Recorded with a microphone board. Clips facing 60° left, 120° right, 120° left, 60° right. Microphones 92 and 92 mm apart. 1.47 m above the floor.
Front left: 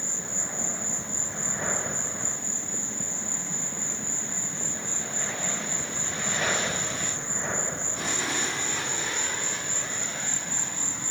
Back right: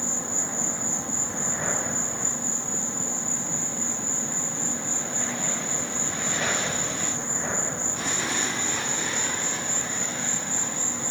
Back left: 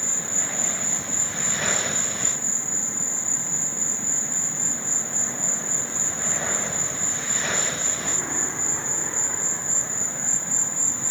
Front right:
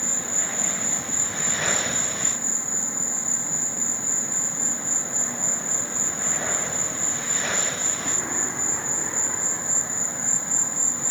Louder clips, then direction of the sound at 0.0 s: Back right 5 dB, front right 1 dB; 130° right.